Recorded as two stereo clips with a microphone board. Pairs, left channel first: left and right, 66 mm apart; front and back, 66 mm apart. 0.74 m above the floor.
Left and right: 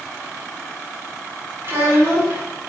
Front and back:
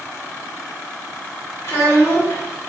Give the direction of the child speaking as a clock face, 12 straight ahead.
1 o'clock.